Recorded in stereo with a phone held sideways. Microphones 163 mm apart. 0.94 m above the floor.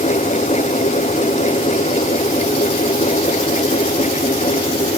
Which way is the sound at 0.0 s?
45° left (ahead or behind).